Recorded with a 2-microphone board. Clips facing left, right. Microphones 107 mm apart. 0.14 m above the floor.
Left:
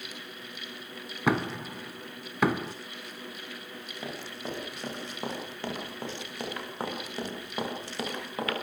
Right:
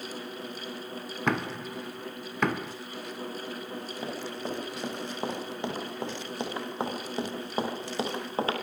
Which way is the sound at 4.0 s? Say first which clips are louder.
Right 2 dB; 15° right (ahead or behind).